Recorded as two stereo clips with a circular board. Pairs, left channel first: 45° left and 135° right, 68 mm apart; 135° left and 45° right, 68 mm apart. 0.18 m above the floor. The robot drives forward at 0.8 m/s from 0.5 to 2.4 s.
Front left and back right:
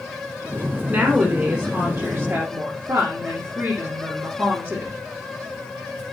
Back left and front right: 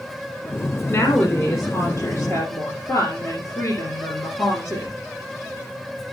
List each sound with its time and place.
0.9 s a woman speaking: 160° left, 2 m; by 4.9 s 170° left, 3 m